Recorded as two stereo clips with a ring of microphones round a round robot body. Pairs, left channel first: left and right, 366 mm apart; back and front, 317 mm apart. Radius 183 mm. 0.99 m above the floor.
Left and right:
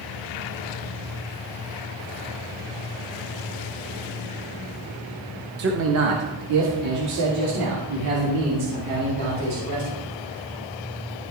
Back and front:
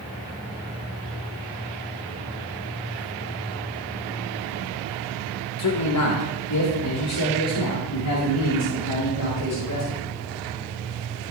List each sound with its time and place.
5.6 s a man speaking: 145° right, 1.0 m; by 10.0 s 130° right, 4.5 m